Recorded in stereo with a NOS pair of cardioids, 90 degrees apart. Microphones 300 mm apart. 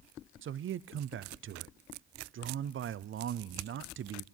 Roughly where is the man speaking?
Ahead right.